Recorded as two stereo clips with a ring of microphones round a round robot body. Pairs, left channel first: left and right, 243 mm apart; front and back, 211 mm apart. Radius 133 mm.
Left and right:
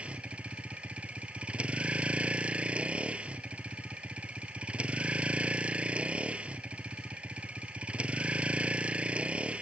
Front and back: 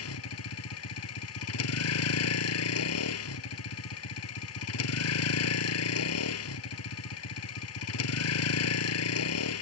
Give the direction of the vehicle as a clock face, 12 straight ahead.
12 o'clock.